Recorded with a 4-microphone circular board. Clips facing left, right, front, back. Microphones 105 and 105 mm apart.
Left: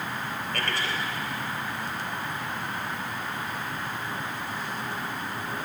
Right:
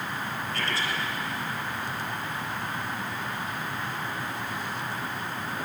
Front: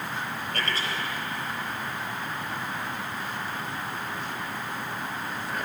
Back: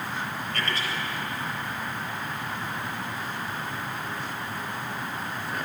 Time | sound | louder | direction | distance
0.5 | a man speaking | left 1 dB, even | 55° left | 4 m